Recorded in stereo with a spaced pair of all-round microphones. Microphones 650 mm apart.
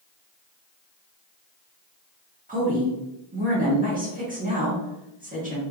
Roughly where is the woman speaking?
Centre.